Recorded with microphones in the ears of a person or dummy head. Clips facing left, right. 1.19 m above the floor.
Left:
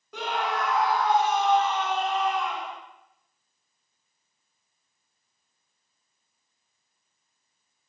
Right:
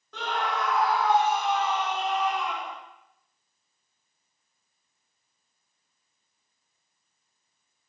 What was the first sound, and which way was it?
A scream, 10° left (ahead or behind).